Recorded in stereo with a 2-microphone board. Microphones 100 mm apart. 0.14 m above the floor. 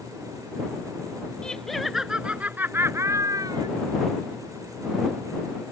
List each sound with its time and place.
1.4 s laughter: 10° left (ahead or behind); by 3.7 s 45° right (ahead or behind)